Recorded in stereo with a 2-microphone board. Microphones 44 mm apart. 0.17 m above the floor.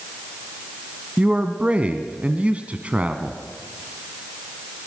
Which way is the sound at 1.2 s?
30° right (ahead or behind).